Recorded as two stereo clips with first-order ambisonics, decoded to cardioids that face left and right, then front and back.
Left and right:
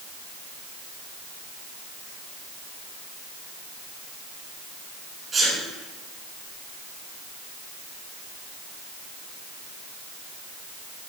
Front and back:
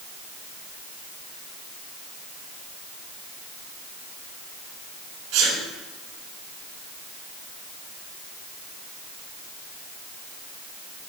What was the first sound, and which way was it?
A sneeze, 160° right.